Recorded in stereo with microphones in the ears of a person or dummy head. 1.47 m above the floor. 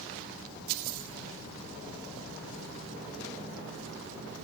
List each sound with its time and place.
Only background noise.